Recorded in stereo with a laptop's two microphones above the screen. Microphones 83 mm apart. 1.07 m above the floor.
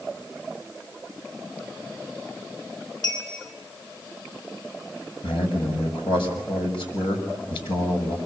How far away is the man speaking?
About 6 m.